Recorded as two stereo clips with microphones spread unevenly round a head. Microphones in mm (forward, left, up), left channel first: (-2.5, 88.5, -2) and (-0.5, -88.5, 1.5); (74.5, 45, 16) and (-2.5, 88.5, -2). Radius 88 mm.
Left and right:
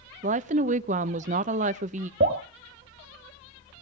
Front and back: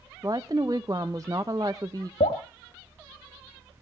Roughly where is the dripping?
Ahead right.